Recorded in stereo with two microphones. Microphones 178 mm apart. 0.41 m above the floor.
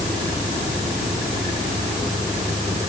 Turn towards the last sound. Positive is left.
No sound to turn to.